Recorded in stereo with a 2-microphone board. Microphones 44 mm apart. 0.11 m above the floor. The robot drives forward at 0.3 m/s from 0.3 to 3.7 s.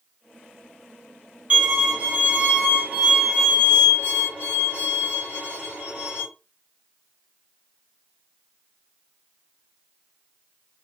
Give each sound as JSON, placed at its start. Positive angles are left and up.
{"t": 1.5, "sound": "a violin", "side_deg": -35, "distance_m": 1.9}